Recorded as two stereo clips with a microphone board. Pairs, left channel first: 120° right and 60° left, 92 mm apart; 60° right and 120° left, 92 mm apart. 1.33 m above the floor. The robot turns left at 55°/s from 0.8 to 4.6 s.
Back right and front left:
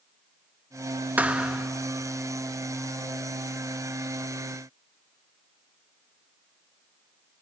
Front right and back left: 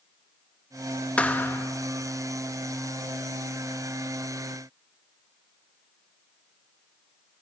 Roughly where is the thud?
Ahead.